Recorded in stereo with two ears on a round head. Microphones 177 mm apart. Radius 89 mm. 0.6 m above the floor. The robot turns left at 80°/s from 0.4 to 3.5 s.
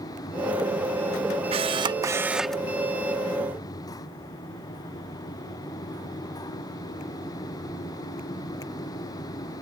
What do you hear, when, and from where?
1.5 s a camera shutter: 30° right (ahead or behind); by 2.6 s 5° left (ahead or behind)